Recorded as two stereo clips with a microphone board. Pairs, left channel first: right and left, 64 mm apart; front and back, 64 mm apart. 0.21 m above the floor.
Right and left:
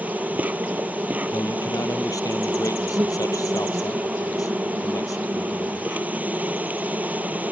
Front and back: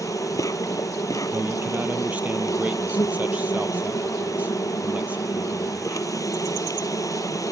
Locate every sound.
0.0 s an insect: 25° left
1.3 s a man speaking: 115° right